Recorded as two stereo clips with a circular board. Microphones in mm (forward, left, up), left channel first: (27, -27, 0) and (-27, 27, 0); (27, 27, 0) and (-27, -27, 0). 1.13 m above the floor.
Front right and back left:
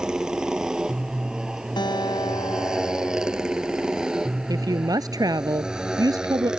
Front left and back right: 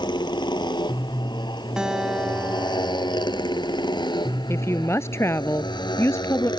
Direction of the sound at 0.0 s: 55° left.